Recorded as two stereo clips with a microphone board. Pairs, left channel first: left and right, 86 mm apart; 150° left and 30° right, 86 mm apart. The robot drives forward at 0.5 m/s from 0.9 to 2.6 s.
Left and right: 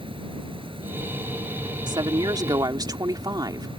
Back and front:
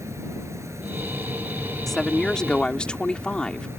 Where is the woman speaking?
120° right; by 3.7 s 130° right.